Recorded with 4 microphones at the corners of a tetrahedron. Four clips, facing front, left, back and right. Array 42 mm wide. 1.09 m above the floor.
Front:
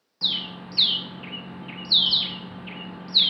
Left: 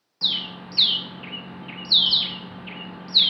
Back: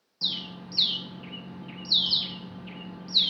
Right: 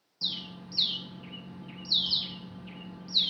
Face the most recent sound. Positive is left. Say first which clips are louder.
# left 10 dB, front 5 dB
turn(degrees=55)